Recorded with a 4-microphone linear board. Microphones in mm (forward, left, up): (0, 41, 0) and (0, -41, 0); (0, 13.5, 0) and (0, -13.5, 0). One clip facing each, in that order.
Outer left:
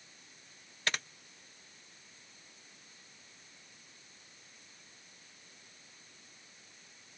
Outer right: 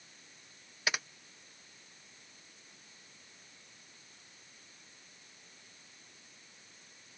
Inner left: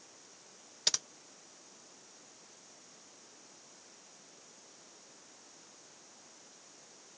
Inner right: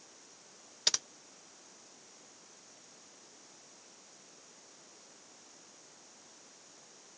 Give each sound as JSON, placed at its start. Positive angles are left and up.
{"t": 0.9, "sound": "typing on a keyboard", "side_deg": -10}